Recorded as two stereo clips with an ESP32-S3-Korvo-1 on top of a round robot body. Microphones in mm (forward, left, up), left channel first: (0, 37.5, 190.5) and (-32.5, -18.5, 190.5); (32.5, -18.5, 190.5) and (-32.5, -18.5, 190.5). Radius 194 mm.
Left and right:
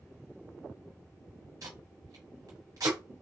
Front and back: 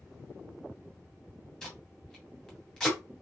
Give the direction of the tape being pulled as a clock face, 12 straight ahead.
3 o'clock.